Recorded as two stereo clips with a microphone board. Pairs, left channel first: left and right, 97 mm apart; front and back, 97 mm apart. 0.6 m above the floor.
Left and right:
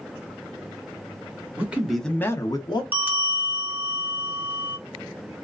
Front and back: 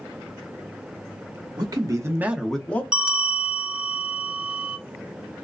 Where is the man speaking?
155° right, 0.9 m; by 2.8 s 70° left, 0.8 m.